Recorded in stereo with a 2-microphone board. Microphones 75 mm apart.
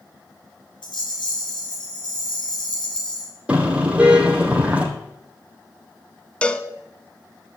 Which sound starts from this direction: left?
A rattle, at 0.8 s.